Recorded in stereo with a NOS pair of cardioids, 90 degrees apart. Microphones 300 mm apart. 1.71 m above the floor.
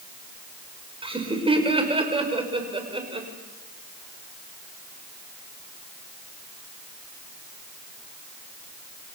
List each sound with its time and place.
1.0 s laughter: 15° right, 6 m